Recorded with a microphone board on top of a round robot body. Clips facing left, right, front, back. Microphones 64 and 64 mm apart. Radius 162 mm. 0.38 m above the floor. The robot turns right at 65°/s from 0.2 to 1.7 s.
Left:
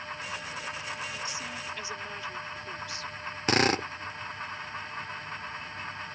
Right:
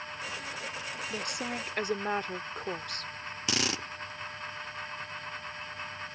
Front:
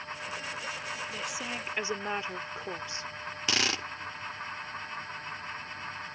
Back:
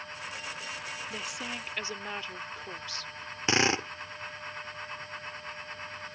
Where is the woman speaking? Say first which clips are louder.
Right 2 dB, front 2 dB; 105° right; by 3.1 s 65° right.